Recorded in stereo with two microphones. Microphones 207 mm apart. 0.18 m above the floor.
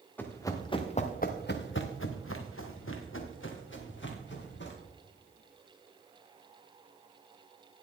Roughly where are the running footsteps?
Centre.